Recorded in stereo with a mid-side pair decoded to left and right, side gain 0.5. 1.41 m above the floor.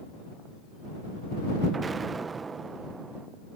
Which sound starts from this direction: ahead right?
An explosion, at 1.7 s.